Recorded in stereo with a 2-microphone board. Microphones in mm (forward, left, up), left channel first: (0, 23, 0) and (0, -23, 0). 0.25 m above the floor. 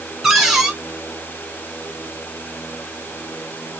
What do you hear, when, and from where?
0.2 s a cupboard door: 5° right (ahead or behind), 1.5 m